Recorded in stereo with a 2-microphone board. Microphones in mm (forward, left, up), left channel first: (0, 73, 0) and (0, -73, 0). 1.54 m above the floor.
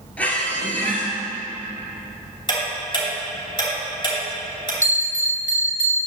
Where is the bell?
60° right (ahead or behind), 1.5 m.